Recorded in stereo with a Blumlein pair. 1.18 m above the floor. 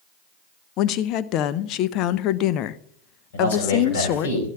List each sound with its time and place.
0.8 s a woman speaking: 35° left, 0.6 m
3.3 s a man speaking: 60° left, 5 m